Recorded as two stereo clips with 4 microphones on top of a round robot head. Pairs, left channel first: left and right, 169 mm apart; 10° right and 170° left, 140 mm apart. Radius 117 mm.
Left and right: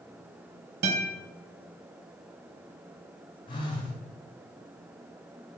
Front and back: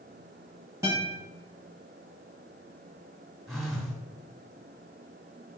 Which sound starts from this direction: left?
A phone buzzing, at 3.5 s.